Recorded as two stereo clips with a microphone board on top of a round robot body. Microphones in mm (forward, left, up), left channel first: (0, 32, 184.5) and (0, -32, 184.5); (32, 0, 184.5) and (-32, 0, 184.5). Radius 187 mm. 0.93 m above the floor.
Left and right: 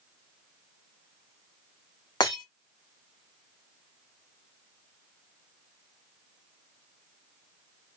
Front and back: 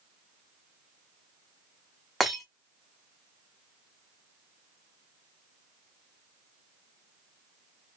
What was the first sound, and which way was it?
Breaking glass, 90° left.